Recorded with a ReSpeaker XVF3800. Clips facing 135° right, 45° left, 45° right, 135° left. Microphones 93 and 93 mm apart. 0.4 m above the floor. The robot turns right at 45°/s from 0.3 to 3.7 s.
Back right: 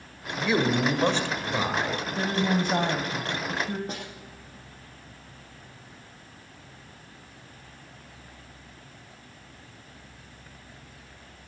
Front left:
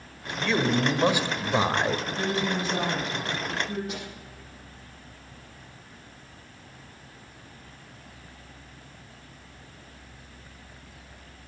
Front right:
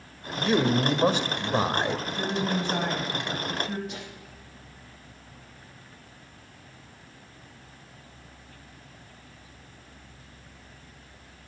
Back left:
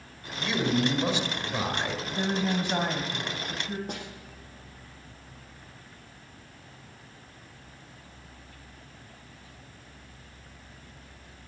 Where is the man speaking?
65° right, 1.4 m; by 2.0 s 10° left, 1.4 m.